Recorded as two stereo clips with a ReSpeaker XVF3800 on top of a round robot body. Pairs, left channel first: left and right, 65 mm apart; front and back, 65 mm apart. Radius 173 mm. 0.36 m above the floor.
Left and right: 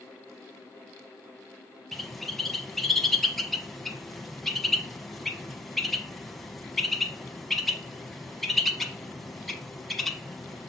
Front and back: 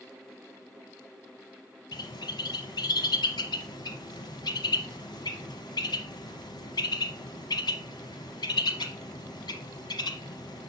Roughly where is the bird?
Ahead.